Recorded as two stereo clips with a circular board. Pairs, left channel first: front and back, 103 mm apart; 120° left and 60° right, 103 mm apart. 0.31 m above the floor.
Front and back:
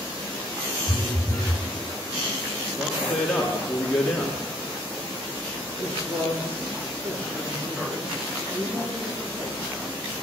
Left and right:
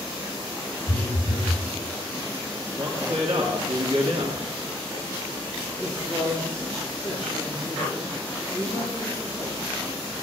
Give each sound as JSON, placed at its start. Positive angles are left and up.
{"t": 0.9, "sound": "a phone buzzing", "azimuth_deg": 135, "distance_m": 4.0}
{"t": 2.8, "sound": "a man speaking", "azimuth_deg": -95, "distance_m": 3.0}
{"t": 5.8, "sound": "a man speaking", "azimuth_deg": -165, "distance_m": 9.0}